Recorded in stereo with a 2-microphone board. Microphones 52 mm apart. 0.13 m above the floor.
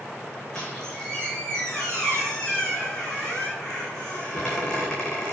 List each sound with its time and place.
0.6 s a squeak: 10° left (ahead or behind), 3 m